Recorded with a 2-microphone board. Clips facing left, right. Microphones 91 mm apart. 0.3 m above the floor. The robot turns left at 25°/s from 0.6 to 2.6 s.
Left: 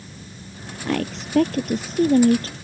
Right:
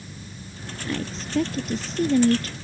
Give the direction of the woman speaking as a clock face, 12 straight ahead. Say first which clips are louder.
Left 6 dB; 9 o'clock.